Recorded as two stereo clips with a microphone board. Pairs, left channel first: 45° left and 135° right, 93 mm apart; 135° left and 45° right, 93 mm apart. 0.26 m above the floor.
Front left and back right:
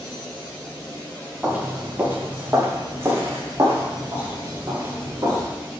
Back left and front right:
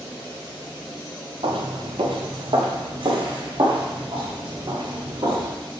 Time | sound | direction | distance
1.4 | footsteps | 60° right | 1.6 m